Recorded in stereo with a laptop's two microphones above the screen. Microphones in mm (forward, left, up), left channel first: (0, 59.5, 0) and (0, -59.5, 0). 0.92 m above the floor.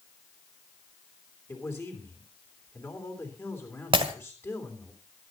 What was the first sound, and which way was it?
A man speaking, 20° left (ahead or behind).